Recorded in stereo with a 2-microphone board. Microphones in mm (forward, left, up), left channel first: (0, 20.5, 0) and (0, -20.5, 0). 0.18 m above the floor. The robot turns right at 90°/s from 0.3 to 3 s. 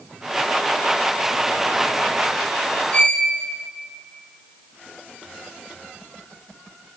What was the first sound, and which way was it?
A violin, 30° left (ahead or behind).